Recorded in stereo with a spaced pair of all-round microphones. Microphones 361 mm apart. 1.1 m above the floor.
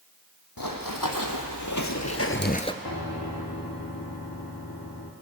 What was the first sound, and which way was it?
Running footsteps, 70° left (ahead or behind).